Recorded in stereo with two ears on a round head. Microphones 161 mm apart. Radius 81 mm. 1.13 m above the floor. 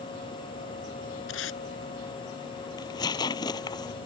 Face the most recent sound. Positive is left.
turn(degrees=20)  # may be behind; listen again after turning